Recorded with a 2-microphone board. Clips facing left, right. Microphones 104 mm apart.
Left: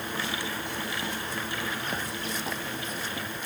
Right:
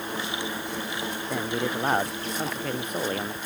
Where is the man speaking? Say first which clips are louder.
Right 6 dB; 65° right (ahead or behind); by 3.4 s 60° right (ahead or behind).